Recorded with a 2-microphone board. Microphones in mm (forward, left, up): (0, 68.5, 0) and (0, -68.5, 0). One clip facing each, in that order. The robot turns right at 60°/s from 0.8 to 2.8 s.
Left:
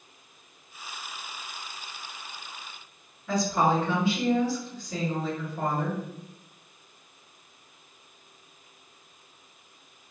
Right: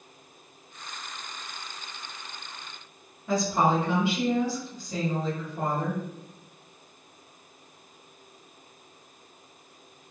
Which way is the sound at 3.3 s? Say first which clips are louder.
Even; 20° right (ahead or behind).